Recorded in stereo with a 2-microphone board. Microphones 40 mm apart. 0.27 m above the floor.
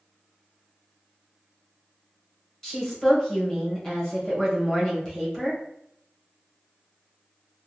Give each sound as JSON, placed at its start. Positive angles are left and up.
{"t": 2.6, "sound": "a woman speaking", "side_deg": 15, "distance_m": 1.0}